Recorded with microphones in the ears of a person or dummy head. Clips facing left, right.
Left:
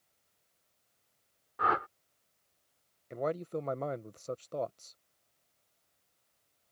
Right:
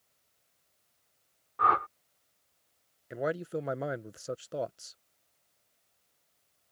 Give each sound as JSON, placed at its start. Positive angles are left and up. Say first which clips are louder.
{"t": 1.6, "sound": "a whoosh", "louder": "right 2 dB", "side_deg": 10}
{"t": 3.1, "sound": "a man speaking", "louder": "right 2 dB", "side_deg": -10}